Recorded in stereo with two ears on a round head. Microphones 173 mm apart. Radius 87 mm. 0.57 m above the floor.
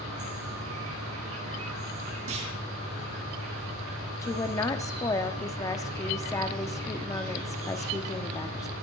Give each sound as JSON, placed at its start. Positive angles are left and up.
{"t": 0.0, "sound": "an insect", "side_deg": -85, "distance_m": 5.0}
{"t": 2.3, "sound": "a clunk", "side_deg": -75, "distance_m": 4.5}
{"t": 4.2, "sound": "a woman speaking", "side_deg": 20, "distance_m": 1.1}